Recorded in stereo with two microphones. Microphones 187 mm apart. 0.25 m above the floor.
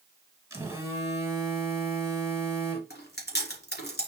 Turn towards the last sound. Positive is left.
turn(degrees=65)  # may be behind; listen again after turning